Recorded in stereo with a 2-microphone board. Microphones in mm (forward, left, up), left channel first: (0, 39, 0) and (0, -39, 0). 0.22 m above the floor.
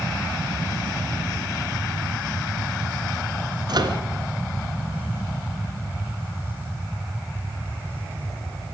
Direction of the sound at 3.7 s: 60° right (ahead or behind).